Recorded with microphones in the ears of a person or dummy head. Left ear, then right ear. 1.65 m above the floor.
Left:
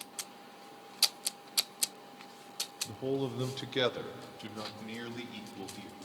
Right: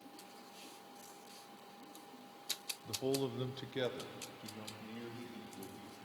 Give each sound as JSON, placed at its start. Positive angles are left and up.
{"t": 2.9, "sound": "a man speaking", "side_deg": -45, "distance_m": 1.1}